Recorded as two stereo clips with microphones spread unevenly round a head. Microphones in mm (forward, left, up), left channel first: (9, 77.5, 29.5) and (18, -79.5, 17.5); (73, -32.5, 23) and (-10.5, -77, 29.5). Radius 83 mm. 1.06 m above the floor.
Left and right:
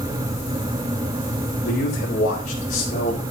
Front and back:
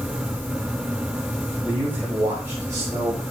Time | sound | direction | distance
1.6 | a man speaking | 125° left | 4 m